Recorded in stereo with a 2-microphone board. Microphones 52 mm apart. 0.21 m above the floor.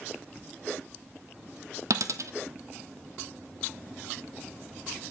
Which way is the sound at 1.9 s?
75° right (ahead or behind).